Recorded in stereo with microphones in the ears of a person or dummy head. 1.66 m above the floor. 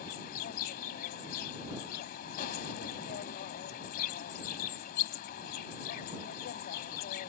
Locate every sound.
0.0 s an insect: 45° left (ahead or behind)